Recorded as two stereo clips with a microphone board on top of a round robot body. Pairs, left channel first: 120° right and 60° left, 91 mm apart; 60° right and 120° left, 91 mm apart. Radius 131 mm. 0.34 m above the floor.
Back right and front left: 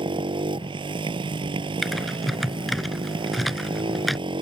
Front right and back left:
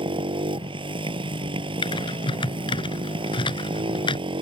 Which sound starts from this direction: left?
A motorcycle, at 0.0 s.